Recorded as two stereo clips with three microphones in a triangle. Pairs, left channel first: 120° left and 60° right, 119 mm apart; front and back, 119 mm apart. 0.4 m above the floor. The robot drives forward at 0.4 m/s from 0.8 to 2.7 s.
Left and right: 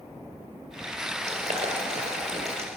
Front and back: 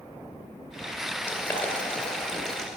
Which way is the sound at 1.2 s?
75° right.